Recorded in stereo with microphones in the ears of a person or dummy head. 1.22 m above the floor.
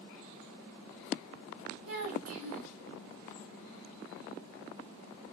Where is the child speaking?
80° right, 2.0 m.